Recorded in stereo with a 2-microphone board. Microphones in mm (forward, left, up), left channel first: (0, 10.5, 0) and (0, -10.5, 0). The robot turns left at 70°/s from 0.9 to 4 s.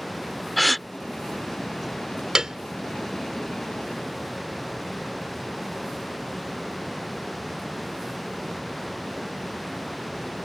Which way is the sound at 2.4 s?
35° right (ahead or behind).